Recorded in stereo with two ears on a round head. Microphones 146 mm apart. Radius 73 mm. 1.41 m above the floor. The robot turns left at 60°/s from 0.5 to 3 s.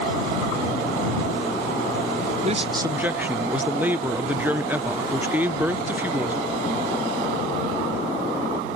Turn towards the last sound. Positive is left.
turn(degrees=-170)